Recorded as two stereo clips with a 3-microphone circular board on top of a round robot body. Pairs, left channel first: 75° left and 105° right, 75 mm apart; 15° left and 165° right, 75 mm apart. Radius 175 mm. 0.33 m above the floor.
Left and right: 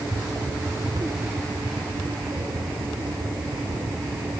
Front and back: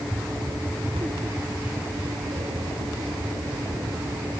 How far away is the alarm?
No alarm in this recording.